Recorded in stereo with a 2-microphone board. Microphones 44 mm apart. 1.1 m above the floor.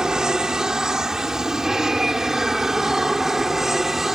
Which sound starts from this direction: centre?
An aircraft, at 0.0 s.